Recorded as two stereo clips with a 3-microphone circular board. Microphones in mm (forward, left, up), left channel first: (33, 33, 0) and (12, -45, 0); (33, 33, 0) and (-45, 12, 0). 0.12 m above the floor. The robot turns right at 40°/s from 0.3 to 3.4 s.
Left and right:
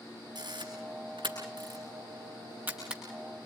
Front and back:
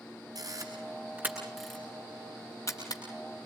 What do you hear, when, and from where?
0.3 s a camera shutter: 130° right, 9 m; by 3.0 s 20° right, 9 m